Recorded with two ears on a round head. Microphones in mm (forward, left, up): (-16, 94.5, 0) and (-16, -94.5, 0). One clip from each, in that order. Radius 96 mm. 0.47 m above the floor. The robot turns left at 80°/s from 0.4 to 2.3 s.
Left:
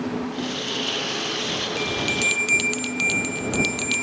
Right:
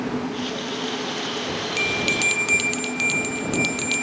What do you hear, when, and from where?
1.8 s a bell: 135° right; by 4.0 s straight behind